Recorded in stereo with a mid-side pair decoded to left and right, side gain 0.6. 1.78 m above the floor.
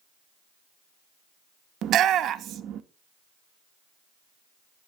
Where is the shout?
55° right, 0.6 m.